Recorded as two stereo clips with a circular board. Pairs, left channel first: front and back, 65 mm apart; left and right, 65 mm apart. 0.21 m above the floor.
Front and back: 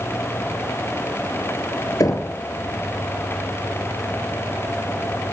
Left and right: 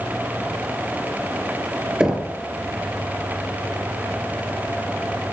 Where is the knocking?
10° right, 2.5 m.